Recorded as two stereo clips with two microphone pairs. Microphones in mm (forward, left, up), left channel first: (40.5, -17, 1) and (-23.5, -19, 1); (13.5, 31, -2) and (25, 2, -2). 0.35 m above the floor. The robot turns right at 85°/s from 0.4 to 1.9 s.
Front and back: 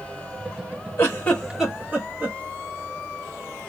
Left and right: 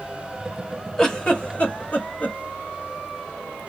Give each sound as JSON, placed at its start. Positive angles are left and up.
{"t": 1.0, "sound": "a giggle", "azimuth_deg": 40, "distance_m": 1.0}